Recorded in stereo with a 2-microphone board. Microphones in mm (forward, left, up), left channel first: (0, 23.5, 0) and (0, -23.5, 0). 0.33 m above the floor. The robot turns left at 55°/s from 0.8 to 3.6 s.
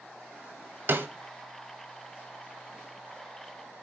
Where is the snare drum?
55° right (ahead or behind), 1.0 m; by 1.1 s 50° right (ahead or behind), 1.0 m.